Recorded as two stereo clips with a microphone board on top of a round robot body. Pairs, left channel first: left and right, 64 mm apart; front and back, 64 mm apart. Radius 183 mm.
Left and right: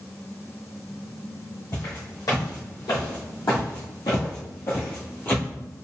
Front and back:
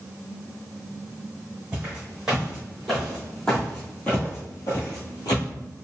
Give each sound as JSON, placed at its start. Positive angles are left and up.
{"t": 1.7, "sound": "footsteps", "azimuth_deg": 105, "distance_m": 1.9}